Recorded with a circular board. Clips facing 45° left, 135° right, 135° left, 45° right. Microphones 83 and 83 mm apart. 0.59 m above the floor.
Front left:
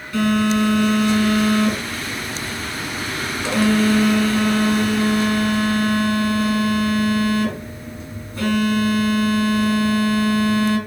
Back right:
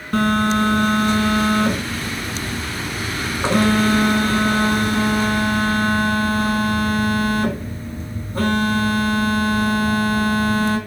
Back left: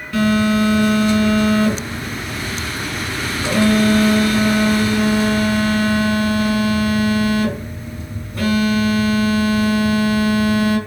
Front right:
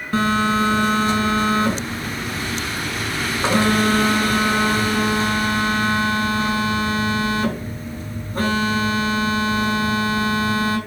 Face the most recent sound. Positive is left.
turn(degrees=-100)